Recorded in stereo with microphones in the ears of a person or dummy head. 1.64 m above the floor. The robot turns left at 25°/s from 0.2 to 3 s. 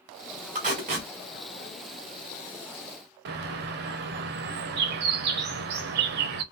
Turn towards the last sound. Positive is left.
turn(degrees=-55)  # may be behind; listen again after turning